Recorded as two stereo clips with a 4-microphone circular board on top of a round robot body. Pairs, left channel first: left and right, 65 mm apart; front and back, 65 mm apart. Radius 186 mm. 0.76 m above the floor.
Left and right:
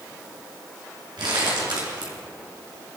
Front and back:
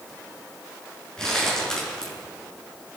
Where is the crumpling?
80° right, 6.5 m.